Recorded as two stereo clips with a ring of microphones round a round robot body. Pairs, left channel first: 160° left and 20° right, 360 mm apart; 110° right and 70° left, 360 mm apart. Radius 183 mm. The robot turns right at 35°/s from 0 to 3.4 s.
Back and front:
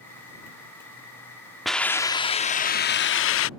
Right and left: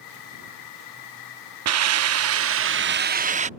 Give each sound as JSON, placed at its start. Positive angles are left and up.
{"t": 1.6, "sound": "a hiss", "azimuth_deg": 65}